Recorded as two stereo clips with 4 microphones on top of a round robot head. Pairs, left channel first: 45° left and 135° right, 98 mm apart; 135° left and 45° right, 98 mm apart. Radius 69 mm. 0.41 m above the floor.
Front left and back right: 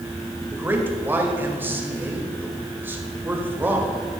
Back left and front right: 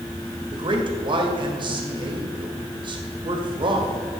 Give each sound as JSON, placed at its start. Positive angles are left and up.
{"t": 0.5, "sound": "a man speaking", "azimuth_deg": -70, "distance_m": 2.0}